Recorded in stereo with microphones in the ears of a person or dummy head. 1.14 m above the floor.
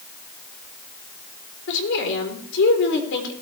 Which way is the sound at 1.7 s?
65° left (ahead or behind).